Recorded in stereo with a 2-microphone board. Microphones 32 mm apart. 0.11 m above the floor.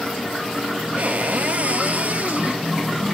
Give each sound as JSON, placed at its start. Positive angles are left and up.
{"t": 1.0, "sound": "a cupboard door", "side_deg": -50, "distance_m": 1.5}